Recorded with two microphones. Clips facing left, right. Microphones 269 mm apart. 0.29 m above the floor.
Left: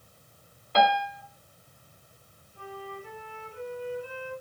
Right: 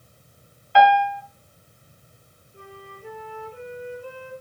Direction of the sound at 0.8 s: 45° left (ahead or behind).